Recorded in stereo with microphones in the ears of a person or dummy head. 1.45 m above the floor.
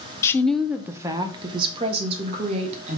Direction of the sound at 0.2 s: 20° left (ahead or behind).